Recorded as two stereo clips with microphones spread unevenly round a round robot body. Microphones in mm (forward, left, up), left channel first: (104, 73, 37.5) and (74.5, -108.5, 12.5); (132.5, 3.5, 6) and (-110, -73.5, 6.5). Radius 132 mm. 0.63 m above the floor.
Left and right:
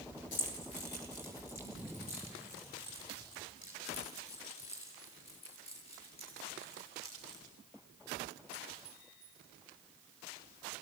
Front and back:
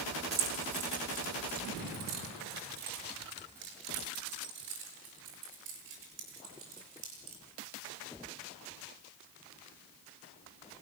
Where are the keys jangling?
130° left, 3 m; by 7.4 s 150° left, 8.5 m.